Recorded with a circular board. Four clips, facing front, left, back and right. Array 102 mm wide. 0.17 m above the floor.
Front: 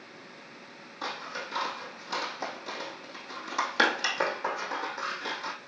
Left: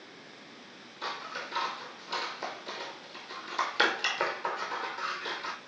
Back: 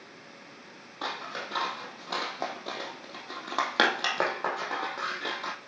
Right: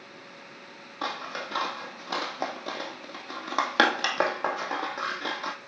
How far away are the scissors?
About 1.6 m.